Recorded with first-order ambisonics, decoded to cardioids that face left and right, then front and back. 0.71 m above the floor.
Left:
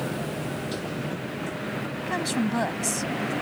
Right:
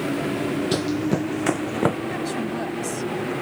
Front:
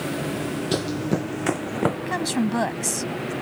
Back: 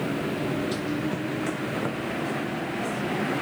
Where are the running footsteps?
45° right; by 2.0 s 60° right.